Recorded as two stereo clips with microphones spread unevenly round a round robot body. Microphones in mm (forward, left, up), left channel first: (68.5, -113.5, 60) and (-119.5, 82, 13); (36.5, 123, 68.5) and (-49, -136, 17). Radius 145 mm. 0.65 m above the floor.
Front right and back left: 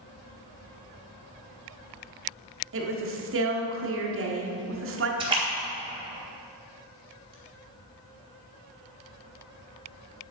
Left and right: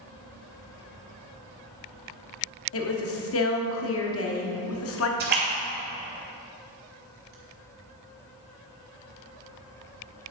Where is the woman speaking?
110° left, 1.5 m.